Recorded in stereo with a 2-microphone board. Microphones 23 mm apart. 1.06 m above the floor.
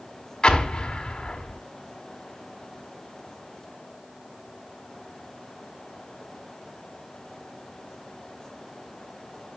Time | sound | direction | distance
0.4 | an explosion | 45° left (ahead or behind) | 1.2 m